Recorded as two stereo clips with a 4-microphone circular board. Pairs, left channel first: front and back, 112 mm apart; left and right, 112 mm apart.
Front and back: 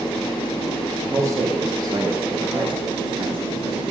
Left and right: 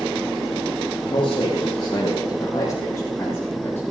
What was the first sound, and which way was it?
A man speaking, 115° left.